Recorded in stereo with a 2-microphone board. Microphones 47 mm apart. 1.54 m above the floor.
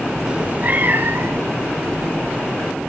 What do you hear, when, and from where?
0.3 s a cat meowing: 15° right (ahead or behind), 0.7 m; by 1.9 s 55° right (ahead or behind), 2.5 m